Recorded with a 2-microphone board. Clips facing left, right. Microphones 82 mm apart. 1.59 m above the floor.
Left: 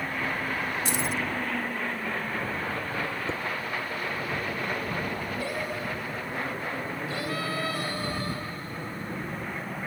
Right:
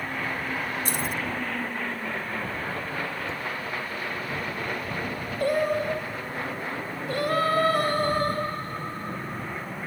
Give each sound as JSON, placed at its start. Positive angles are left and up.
{"t": 0.8, "sound": "keys jangling", "side_deg": -45}
{"t": 3.3, "sound": "dishes clattering", "side_deg": 30}
{"t": 5.4, "sound": "singing", "side_deg": -50}